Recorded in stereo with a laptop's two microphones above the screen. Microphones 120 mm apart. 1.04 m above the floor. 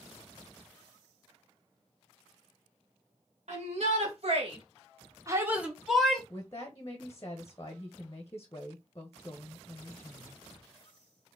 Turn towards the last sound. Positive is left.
turn(degrees=25)  # may be behind; listen again after turning